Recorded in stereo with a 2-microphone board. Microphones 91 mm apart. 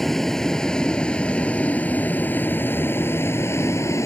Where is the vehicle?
5° left (ahead or behind); by 4.1 s 30° left (ahead or behind).